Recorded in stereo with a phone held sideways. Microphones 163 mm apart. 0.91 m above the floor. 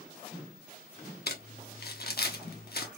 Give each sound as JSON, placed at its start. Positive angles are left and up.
{"t": 1.3, "sound": "crumpling", "side_deg": 75, "distance_m": 0.9}